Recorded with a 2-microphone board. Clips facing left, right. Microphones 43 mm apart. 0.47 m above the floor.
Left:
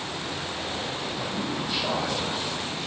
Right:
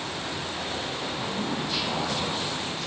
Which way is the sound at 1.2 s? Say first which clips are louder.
Right 1 dB; 5° right (ahead or behind).